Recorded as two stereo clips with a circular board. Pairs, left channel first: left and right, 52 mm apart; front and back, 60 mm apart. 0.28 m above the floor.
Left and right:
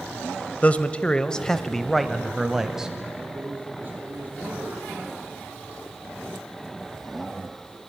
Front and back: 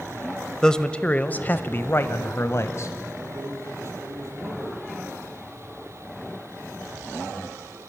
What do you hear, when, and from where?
0.6 s a man speaking: 70° left, 1.0 m; by 2.9 s 15° right, 1.4 m
3.1 s a man speaking: 145° right, 7 m